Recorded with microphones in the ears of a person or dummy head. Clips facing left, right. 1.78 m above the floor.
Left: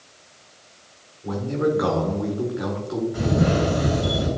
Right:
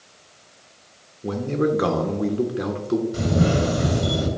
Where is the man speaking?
40° right (ahead or behind), 1.4 m.